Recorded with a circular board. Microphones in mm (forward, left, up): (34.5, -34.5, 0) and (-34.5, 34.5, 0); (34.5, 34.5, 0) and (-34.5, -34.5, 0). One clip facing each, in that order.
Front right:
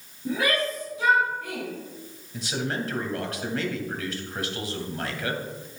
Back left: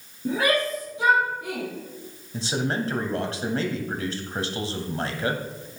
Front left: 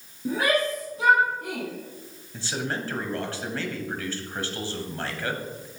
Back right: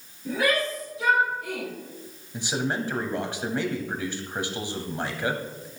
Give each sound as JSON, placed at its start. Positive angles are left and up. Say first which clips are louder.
{"t": 0.2, "sound": "a shout", "louder": "back left 3 dB, front left 1 dB", "azimuth_deg": 90, "distance_m": 4.0}
{"t": 2.3, "sound": "a man speaking", "louder": "back left 3 dB, back right 3 dB", "azimuth_deg": 165, "distance_m": 1.4}